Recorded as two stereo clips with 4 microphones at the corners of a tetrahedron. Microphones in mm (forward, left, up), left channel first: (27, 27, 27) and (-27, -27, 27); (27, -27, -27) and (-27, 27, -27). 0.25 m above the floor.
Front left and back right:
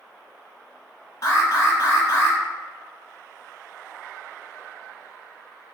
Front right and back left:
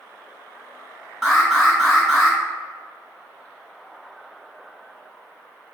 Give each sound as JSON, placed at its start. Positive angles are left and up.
{"t": 1.2, "sound": "an alarm", "azimuth_deg": 45, "distance_m": 1.1}